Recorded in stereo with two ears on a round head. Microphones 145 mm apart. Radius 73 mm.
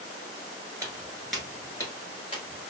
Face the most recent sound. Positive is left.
turn(degrees=40)  # may be behind; listen again after turning